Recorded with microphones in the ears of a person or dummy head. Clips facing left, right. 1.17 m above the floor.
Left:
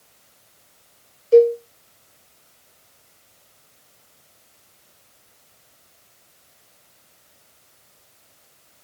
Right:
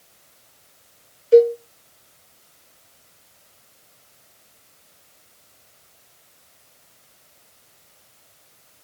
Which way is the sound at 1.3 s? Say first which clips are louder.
Even; 20° right (ahead or behind).